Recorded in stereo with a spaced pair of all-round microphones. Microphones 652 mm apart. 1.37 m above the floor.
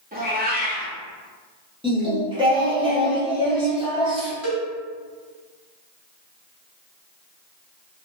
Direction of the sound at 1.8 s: 10° right (ahead or behind).